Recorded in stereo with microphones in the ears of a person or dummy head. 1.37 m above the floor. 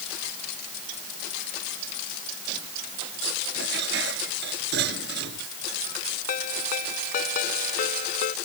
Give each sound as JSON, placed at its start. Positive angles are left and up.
{"t": 3.5, "sound": "dishes clattering", "side_deg": -70}
{"t": 6.3, "sound": "a ringtone", "side_deg": 55}